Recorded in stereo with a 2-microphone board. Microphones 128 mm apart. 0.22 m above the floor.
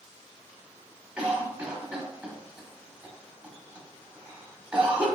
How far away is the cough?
About 1.1 m.